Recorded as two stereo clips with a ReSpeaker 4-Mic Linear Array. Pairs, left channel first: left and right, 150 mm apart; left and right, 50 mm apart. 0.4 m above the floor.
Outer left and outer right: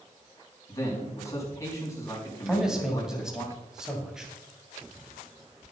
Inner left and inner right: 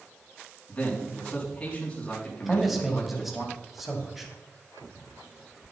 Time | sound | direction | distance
0.7 | a man speaking | 20° left (ahead or behind) | 4 m
2.5 | a man speaking | 5° right (ahead or behind) | 2.5 m